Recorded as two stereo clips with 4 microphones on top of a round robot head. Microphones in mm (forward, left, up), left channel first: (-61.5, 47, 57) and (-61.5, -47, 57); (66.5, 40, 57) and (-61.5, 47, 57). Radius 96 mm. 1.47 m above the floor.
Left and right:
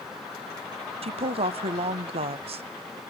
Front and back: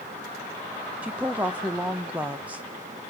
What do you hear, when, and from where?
1.0 s a woman speaking: 100° right, 1.0 m